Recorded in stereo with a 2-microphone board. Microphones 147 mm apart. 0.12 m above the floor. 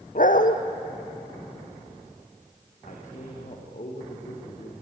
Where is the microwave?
No microwave in this recording.